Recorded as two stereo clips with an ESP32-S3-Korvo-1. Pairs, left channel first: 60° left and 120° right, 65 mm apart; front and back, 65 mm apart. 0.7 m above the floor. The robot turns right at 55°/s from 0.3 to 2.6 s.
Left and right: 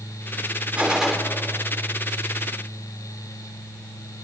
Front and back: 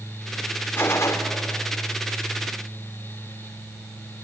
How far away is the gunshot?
About 2.5 m.